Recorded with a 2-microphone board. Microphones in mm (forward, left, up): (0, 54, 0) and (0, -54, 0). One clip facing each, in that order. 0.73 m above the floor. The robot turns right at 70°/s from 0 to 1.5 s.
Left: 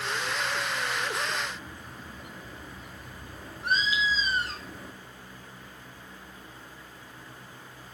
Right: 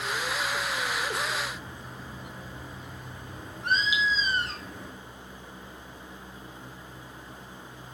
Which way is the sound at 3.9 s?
10° right (ahead or behind).